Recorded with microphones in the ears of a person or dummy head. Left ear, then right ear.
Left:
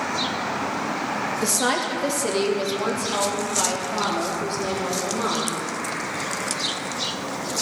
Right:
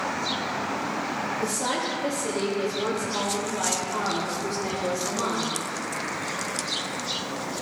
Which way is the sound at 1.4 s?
70° left (ahead or behind).